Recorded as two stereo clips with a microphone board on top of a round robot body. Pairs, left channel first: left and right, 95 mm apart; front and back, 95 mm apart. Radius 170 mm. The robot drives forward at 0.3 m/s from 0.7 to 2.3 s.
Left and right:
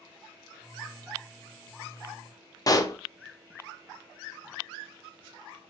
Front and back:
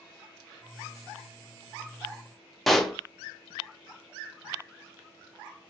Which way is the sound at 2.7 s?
90° left.